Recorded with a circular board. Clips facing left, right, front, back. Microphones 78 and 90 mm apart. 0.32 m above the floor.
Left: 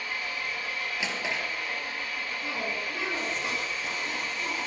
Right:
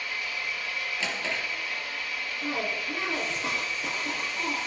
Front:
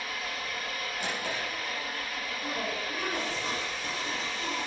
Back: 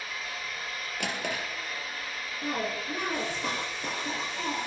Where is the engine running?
35° left, 4 m.